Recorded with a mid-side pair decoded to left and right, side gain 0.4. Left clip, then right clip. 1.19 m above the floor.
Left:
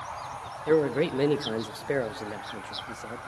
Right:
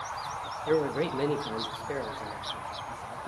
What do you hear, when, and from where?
0.7 s a man speaking: 25° left, 1.4 m; by 3.2 s 80° left, 1.6 m